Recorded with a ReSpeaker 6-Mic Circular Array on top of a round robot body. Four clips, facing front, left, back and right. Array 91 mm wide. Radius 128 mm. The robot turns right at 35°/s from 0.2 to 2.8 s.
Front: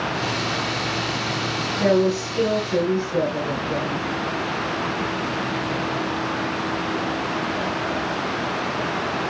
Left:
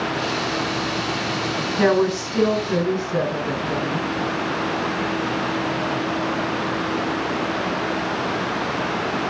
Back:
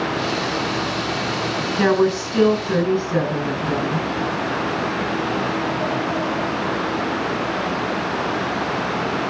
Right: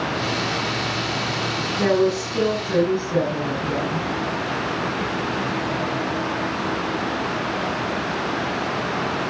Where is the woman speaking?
140° left, 9 m; by 4.0 s 175° left, 9 m.